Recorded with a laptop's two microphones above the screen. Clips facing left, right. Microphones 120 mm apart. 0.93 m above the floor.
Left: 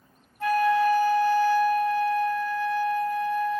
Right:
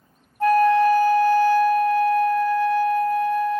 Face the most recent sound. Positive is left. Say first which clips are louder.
# right 6 dB
turn(degrees=-40)  # may be behind; listen again after turning